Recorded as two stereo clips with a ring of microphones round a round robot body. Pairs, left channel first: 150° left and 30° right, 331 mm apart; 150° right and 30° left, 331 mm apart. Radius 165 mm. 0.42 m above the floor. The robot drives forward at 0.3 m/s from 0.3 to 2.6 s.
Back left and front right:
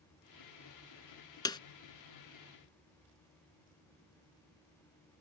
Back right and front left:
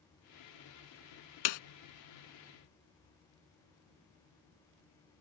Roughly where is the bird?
No bird in this recording.